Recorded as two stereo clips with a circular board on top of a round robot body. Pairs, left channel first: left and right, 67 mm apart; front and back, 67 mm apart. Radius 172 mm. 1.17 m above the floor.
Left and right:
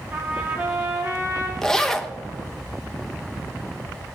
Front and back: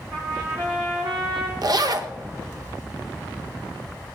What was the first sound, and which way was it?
A trumpet, 150° right.